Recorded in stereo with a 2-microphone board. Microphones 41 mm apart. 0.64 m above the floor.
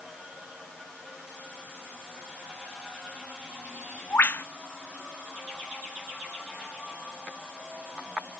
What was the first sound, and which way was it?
A bird, 55° left (ahead or behind).